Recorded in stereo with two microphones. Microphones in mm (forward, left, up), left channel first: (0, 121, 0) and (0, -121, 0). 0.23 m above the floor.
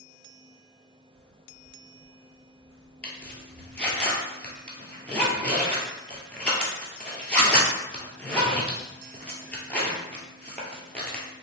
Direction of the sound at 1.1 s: 60° right (ahead or behind).